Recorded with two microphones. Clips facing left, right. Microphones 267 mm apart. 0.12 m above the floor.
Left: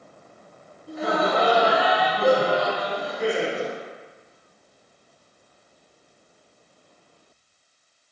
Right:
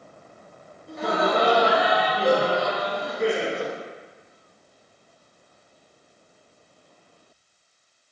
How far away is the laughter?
About 1.1 m.